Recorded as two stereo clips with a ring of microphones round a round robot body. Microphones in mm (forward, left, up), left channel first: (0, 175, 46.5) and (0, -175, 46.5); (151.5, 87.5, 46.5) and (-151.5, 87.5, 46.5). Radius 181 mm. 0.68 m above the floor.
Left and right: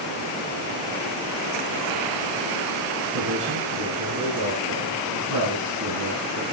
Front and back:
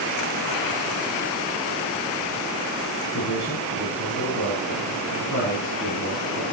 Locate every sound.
3.1 s a man speaking: 55° right, 7.5 m